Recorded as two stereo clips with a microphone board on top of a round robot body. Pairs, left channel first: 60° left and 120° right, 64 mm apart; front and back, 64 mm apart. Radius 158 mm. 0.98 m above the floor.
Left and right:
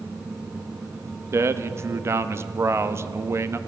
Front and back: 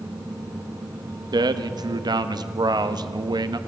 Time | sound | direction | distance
1.3 | a man speaking | 170° right | 1.4 m